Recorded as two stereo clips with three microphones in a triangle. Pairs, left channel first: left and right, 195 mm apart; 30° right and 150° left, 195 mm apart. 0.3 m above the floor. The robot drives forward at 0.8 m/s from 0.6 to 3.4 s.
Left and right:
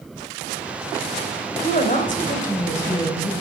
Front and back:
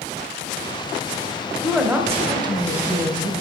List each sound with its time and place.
1.6 s a woman speaking: 65° left, 1.8 m; by 3.3 s 125° left, 1.9 m